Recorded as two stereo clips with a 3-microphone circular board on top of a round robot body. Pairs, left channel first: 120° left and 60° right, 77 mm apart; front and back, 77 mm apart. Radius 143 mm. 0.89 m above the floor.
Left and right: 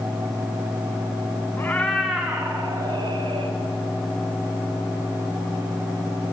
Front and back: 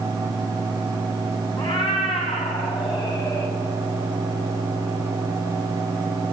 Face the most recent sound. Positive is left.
turn(degrees=-40)